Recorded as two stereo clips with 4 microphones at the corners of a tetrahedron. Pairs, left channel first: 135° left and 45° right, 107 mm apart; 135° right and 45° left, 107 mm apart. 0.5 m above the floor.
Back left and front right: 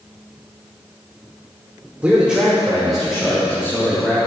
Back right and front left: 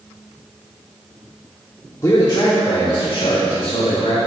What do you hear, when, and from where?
2.0 s a man speaking: 110° right, 1.4 m; by 4.2 s 140° right, 4 m